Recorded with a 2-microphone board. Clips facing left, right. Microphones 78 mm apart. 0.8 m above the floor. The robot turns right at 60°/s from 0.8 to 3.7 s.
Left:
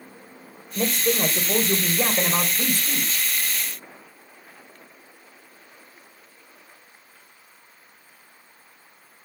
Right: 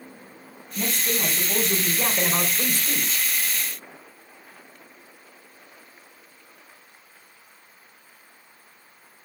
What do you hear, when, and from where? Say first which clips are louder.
0.8 s a man speaking: left 5 dB; 80° left, 3 m; by 3.3 s 130° right, 3 m